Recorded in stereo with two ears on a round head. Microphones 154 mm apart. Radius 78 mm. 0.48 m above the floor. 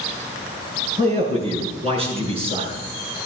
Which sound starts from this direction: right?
A man speaking, at 1.0 s.